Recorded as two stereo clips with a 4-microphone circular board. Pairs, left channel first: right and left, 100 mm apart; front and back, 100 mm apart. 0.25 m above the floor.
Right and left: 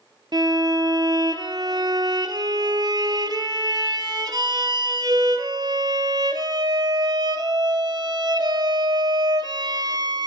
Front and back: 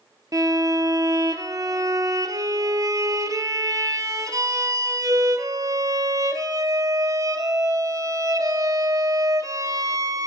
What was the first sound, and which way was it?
A violin, 130° left.